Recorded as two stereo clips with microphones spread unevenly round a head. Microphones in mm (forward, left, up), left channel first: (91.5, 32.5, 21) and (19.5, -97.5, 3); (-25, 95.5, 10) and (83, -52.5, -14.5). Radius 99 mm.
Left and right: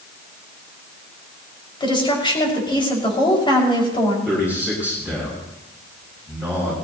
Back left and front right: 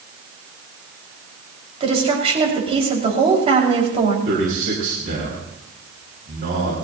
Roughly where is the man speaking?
Ahead.